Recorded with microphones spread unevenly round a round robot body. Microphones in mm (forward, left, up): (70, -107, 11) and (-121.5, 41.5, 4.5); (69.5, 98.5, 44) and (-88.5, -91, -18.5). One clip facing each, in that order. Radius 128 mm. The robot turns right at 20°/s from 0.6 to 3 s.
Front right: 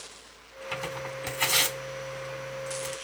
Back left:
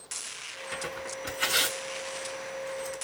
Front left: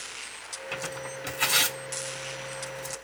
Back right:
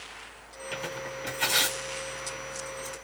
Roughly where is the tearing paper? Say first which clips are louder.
Front right 2 dB, even; ahead right.